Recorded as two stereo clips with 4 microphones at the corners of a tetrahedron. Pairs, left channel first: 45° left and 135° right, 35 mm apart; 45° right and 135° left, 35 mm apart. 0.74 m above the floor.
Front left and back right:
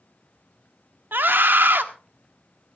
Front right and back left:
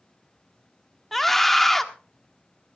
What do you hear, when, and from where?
1.1 s a scream: 130° right, 1.3 m